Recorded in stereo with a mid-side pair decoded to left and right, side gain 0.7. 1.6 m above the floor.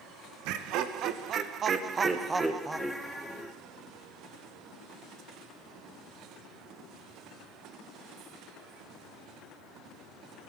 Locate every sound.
0.5 s laughter: 65° right, 1.9 m; by 3.5 s 10° left, 2.5 m